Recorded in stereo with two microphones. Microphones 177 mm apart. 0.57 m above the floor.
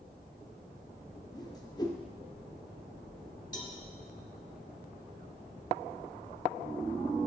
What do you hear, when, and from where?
1.3 s a whoosh: 25° left (ahead or behind), 0.6 m
3.5 s a cowbell: 25° left (ahead or behind), 1.0 m